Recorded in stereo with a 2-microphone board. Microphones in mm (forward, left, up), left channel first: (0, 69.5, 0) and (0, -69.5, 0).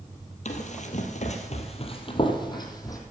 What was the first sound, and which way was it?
Running footsteps, 55° left (ahead or behind).